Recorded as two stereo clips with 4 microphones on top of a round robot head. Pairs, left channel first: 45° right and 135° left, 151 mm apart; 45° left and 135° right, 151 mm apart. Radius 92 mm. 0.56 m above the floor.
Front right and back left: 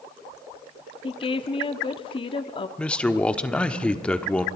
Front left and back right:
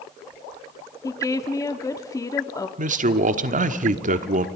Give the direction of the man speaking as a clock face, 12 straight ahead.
4 o'clock.